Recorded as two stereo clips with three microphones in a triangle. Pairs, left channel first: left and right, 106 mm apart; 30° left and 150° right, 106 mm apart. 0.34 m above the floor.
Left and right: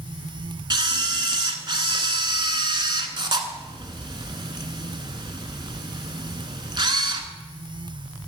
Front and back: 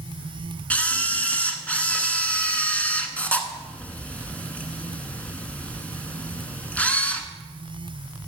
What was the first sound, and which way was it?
A camera shutter, 45° right.